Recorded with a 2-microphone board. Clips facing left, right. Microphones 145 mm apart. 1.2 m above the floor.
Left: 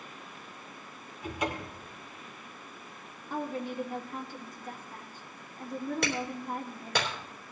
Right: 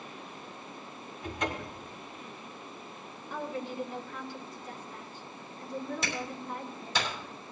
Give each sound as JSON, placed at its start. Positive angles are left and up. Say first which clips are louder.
{"t": 1.2, "sound": "a cupboard door", "louder": "left 1 dB", "side_deg": 10, "distance_m": 2.0}
{"t": 3.3, "sound": "a woman speaking", "louder": "left 2 dB", "side_deg": 45, "distance_m": 2.0}
{"t": 6.0, "sound": "a clap", "louder": "left 3 dB", "side_deg": 65, "distance_m": 3.5}